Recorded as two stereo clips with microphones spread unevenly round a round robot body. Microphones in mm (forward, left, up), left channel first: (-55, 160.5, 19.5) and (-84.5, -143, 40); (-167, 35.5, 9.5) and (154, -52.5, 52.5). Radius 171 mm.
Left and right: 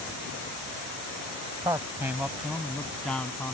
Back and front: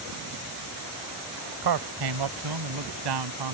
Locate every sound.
1.6 s a man speaking: 15° right; by 3.5 s straight ahead